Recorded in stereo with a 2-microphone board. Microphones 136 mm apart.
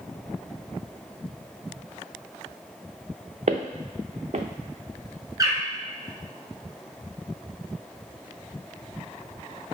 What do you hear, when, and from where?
3.5 s footsteps: 60° right (ahead or behind), 0.6 m
5.4 s a bird: 25° right (ahead or behind), 1.1 m